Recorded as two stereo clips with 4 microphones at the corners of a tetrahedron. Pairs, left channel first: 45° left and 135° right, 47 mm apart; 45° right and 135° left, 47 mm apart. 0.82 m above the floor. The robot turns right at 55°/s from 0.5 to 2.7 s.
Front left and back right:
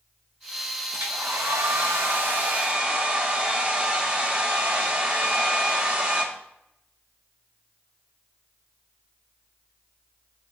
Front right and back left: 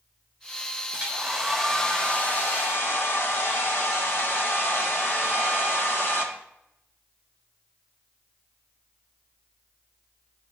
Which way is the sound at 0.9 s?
165° right.